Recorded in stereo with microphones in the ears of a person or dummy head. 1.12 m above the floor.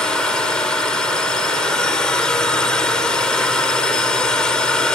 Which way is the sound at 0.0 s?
5° left (ahead or behind).